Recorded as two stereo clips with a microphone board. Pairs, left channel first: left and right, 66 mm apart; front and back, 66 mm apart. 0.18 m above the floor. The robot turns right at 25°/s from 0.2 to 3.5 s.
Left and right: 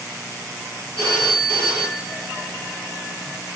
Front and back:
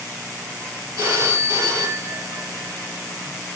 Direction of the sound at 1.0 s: 150° left.